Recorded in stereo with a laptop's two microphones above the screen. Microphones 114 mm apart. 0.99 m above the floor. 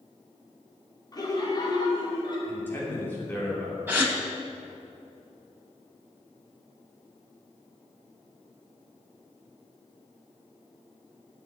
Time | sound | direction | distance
1.1 | laughter | 30° left (ahead or behind) | 2.5 m
2.5 | a man speaking | 15° left (ahead or behind) | 3 m
3.9 | a gasp | 15° right (ahead or behind) | 2 m